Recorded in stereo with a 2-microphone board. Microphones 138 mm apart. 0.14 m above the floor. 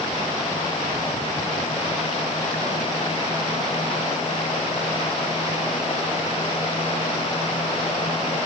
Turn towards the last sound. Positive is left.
No sound to turn to.